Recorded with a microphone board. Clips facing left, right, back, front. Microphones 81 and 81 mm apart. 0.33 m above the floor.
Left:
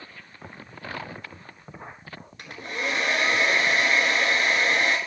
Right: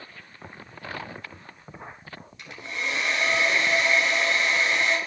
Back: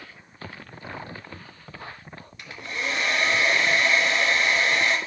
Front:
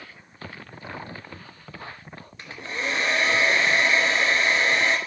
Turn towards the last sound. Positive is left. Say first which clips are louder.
# left 2 dB, front 1 dB
turn(degrees=55)